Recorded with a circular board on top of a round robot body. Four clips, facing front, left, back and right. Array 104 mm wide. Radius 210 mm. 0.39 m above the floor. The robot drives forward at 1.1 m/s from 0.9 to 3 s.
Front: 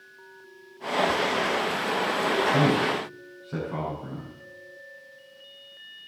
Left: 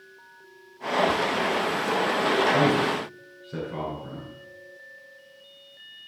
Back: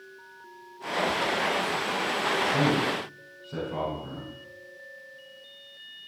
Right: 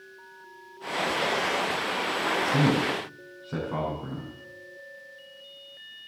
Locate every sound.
2.5 s a man speaking: 70° right, 6.5 m; by 4.3 s 75° right, 6.5 m